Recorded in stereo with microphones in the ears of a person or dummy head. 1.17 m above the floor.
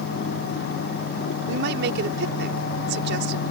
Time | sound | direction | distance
1.5 | a woman speaking | 70° right (ahead or behind) | ?